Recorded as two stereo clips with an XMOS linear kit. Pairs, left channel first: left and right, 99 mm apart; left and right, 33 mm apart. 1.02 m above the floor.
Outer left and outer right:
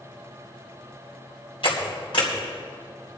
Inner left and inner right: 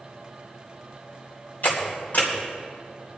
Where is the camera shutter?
80° left, 3.5 m.